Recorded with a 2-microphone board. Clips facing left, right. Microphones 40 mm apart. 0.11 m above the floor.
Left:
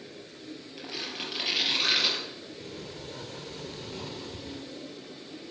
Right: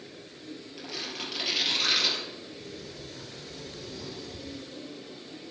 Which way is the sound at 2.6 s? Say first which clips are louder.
Left 1 dB; 50° left (ahead or behind).